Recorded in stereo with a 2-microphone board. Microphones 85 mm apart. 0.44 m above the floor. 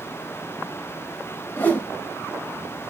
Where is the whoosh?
25° left (ahead or behind), 1.7 m.